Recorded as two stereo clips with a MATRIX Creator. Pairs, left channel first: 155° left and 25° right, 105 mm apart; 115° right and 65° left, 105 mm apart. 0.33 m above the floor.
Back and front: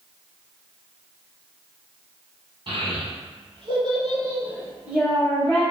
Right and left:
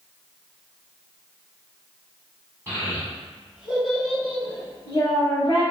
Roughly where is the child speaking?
Ahead.